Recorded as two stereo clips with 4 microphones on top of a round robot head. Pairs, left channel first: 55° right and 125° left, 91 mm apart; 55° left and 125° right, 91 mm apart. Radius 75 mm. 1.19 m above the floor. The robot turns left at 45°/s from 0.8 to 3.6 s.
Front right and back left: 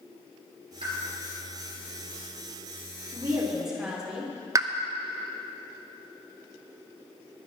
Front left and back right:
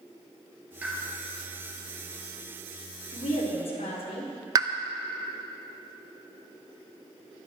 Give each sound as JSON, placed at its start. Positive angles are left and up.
{"t": 0.8, "sound": "a pop", "azimuth_deg": 160, "distance_m": 3.5}
{"t": 3.1, "sound": "a woman speaking", "azimuth_deg": 65, "distance_m": 3.0}
{"t": 4.5, "sound": "a pop", "azimuth_deg": 180, "distance_m": 0.6}